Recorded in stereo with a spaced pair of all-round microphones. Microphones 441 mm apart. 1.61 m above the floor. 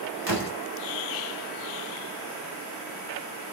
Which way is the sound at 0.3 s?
55° right (ahead or behind).